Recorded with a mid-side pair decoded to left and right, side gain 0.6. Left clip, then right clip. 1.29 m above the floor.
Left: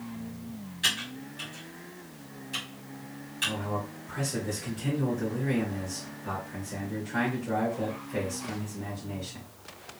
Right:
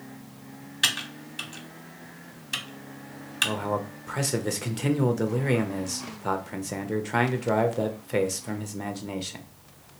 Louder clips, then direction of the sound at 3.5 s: Right 4 dB; 70° right.